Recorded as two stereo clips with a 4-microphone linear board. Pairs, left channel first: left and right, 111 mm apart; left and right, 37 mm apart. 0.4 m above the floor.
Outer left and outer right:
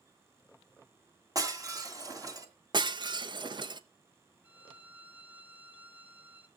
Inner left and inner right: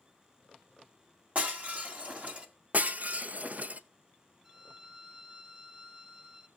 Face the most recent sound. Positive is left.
turn(degrees=-15)  # may be behind; listen again after turning